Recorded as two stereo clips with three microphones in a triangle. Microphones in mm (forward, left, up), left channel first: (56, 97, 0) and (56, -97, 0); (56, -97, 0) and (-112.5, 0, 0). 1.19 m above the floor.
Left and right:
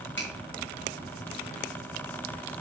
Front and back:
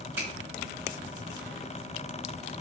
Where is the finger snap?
70° left, 3 m.